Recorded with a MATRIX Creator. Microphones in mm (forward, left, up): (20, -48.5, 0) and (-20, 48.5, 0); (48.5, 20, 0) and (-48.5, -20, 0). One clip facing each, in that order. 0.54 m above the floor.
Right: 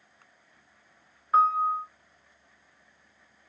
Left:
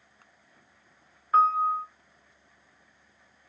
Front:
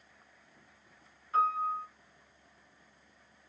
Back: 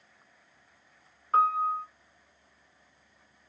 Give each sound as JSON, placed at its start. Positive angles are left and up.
{"t": 1.3, "sound": "a piano", "azimuth_deg": -160, "distance_m": 2.5}